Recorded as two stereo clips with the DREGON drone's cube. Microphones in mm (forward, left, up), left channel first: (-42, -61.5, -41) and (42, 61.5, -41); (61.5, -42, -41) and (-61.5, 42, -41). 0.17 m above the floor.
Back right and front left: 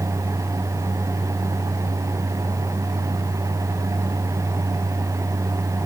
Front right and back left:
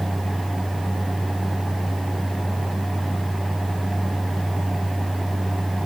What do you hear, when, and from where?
Only background noise.